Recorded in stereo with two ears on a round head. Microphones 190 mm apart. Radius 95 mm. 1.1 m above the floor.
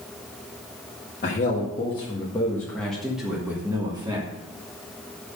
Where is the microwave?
No microwave in this recording.